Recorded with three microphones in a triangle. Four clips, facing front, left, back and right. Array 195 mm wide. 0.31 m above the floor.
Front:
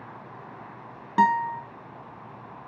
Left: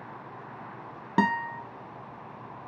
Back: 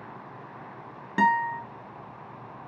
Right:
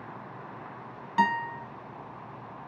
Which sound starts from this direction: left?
A guitar, at 1.2 s.